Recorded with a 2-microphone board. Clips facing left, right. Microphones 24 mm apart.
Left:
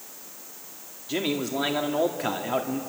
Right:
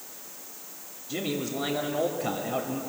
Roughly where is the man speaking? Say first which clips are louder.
Left 4 dB; left.